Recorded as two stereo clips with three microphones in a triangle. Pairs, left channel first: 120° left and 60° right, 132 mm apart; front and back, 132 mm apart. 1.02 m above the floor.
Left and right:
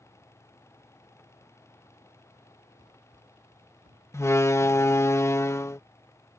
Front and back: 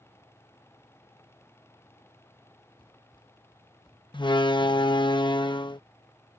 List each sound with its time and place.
2.8 s running footsteps: 50° right; by 5.1 s 60° right
4.1 s a door slam: 50° left